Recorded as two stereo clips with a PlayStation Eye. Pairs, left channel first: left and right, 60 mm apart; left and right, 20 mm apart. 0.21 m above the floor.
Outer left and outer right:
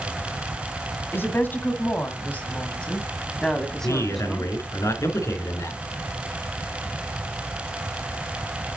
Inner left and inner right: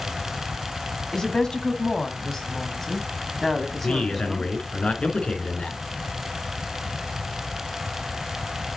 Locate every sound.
1.1 s a woman speaking: 35° left (ahead or behind), 1.7 m; by 4.5 s 5° left (ahead or behind), 1.9 m
3.8 s a man speaking: 60° left (ahead or behind), 3 m